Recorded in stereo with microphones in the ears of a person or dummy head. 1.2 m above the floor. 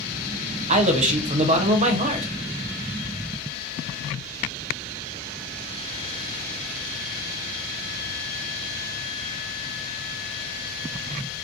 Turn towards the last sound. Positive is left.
turn(degrees=-40)  # may be behind; listen again after turning